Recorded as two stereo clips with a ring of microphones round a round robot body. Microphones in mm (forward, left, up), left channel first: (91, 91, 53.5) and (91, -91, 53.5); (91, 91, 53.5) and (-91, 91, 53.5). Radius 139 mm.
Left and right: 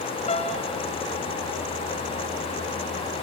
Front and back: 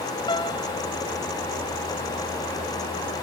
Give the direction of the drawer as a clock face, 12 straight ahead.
No drawer in this recording.